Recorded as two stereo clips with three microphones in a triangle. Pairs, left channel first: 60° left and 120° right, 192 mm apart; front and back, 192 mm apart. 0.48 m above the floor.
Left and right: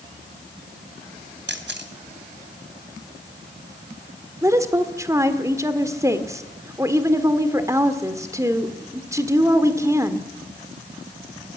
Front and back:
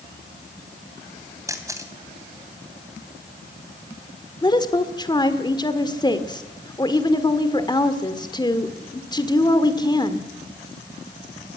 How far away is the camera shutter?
About 2.5 m.